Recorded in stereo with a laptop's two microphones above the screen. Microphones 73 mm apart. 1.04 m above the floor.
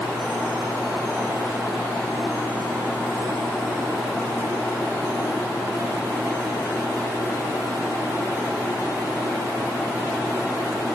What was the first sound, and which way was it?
Only background noise.